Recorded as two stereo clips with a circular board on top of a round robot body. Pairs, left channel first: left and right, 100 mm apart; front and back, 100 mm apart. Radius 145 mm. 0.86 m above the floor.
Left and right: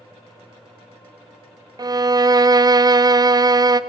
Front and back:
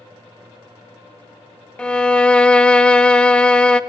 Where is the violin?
75° right, 0.6 m.